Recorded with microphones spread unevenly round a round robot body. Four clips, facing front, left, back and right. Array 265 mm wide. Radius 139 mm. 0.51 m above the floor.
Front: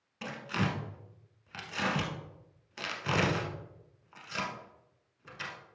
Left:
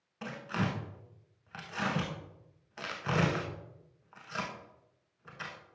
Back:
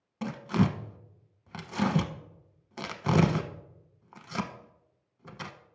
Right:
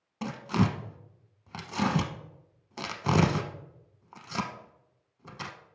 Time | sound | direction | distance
0.2 | tearing paper | 125° right | 0.8 m